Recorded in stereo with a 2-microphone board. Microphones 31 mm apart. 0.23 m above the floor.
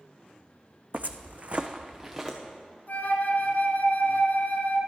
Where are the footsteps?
50° right (ahead or behind), 0.7 m; by 2.4 s 10° right (ahead or behind), 1.5 m.